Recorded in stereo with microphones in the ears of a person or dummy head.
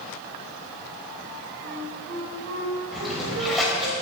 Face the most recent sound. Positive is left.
turn(degrees=5)  # may be behind; listen again after turning